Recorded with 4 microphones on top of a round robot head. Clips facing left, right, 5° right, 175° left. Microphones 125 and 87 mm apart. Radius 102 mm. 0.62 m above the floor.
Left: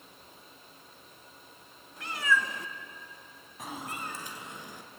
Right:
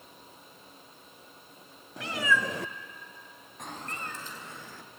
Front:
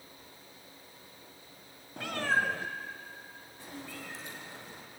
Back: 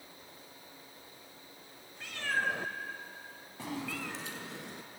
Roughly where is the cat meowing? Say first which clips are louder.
Right 1 dB, front 5 dB; ahead right.